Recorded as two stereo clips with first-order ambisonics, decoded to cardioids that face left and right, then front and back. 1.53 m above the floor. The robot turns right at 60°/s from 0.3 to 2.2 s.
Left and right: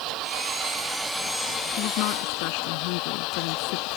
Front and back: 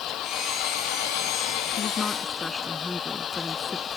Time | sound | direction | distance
0.0 | an engine running | 50° right | ?
1.8 | a woman speaking | 60° left | ?